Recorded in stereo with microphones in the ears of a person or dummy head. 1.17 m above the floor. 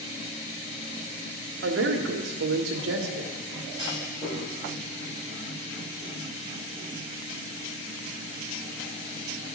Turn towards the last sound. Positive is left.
turn(degrees=40)  # may be behind; listen again after turning